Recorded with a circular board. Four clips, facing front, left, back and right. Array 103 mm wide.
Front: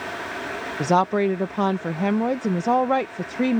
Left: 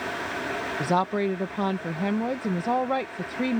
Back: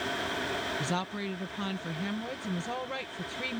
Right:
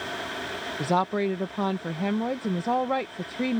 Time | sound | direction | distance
0.8 | a woman speaking | straight ahead | ?